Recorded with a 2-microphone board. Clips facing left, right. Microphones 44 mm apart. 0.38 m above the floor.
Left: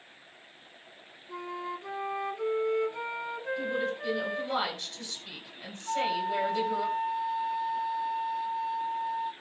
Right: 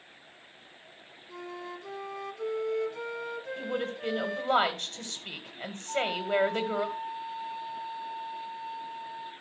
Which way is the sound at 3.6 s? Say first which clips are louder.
Left 1 dB; 50° right (ahead or behind).